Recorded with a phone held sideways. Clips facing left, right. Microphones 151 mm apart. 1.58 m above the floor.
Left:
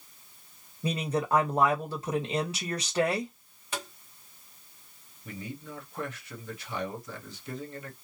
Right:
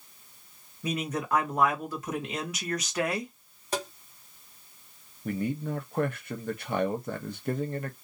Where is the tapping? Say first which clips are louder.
Right 6 dB; 40° right (ahead or behind), 1.1 m.